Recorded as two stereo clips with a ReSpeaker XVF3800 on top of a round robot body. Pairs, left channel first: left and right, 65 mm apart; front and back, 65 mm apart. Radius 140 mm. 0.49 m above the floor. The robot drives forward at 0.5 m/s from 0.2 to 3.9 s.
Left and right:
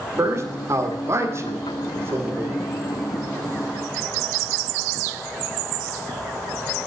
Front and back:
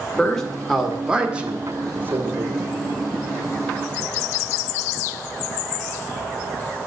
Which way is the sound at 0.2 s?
75° right.